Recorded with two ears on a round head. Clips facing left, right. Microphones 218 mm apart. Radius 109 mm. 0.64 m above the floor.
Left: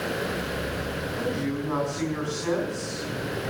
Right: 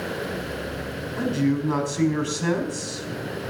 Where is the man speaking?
55° right (ahead or behind), 4.5 m.